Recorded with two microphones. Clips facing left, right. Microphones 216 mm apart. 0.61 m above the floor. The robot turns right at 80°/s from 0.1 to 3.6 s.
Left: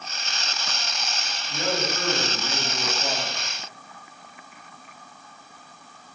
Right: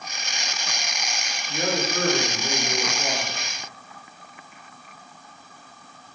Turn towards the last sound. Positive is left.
turn(degrees=-5)